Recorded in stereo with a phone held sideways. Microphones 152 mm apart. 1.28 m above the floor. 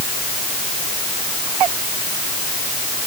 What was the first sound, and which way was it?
Only background noise.